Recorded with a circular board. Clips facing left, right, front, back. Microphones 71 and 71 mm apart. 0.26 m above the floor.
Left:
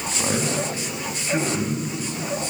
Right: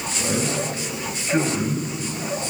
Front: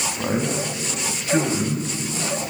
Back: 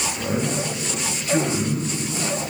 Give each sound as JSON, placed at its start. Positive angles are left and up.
{"t": 0.2, "sound": "a man speaking", "azimuth_deg": 40, "distance_m": 2.5}